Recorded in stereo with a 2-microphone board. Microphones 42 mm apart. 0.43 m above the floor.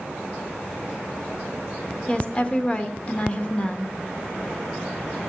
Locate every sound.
2.1 s a woman speaking: 25° left (ahead or behind), 0.8 m